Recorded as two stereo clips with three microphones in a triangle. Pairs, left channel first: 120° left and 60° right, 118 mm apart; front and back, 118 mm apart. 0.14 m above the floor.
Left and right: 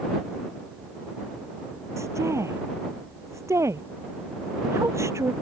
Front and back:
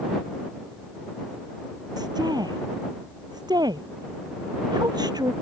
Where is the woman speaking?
125° right.